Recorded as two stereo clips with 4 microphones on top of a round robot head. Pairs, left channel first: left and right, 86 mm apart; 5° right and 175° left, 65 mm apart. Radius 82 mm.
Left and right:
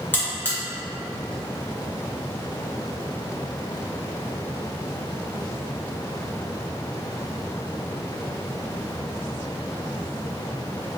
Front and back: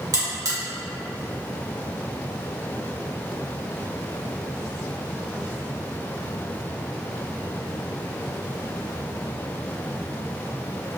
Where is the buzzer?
155° left, 1.1 m.